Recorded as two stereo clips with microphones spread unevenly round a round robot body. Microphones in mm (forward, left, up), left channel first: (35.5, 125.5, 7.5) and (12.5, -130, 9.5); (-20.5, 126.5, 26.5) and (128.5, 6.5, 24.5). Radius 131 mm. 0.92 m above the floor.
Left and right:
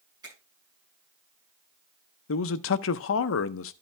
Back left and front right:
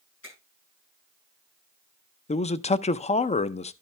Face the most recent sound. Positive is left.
turn(degrees=95)